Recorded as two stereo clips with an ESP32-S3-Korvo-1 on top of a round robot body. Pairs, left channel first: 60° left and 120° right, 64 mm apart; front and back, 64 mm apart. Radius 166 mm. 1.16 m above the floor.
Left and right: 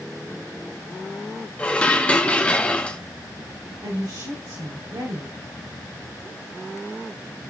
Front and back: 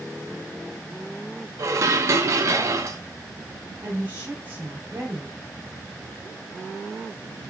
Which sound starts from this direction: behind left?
Dishes clattering, at 1.6 s.